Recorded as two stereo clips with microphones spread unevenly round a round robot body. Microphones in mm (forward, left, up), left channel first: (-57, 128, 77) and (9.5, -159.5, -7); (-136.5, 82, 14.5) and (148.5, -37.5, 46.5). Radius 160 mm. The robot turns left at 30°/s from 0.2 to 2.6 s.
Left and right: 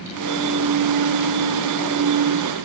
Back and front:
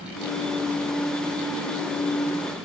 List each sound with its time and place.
Only background noise.